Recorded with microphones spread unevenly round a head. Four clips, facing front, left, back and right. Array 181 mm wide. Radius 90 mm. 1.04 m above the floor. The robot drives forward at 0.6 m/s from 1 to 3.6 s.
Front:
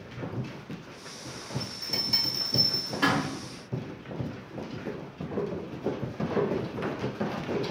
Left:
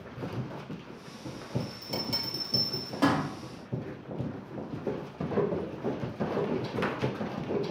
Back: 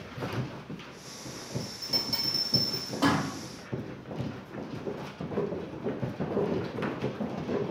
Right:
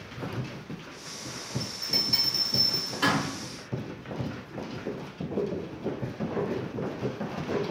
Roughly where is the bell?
Left.